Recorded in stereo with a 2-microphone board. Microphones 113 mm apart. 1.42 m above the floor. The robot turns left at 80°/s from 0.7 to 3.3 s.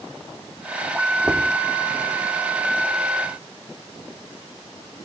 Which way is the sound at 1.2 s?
40° right (ahead or behind).